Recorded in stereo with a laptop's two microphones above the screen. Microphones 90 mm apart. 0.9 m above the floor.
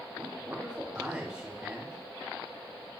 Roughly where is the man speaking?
Right.